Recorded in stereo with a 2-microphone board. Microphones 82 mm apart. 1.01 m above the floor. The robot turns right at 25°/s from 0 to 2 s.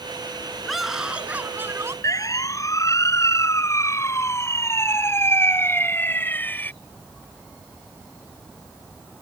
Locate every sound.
0.7 s a scream: straight behind; by 1.9 s 150° right
2.0 s a siren: 40° left (ahead or behind); by 6.7 s 20° left (ahead or behind)